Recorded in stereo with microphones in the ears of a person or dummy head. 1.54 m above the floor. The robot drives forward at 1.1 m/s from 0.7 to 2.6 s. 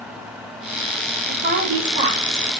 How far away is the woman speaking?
About 4.5 m.